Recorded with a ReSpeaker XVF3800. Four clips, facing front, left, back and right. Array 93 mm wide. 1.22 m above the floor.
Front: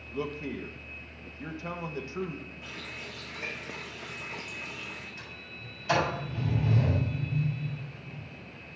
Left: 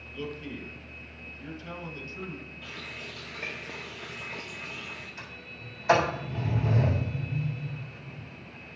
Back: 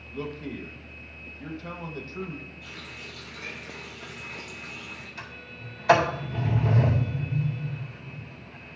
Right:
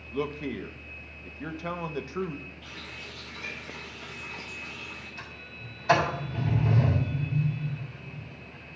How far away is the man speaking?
About 1.0 m.